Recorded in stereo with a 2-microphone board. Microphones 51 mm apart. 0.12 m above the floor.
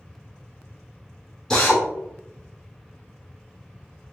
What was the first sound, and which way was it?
A drill, 5° left (ahead or behind).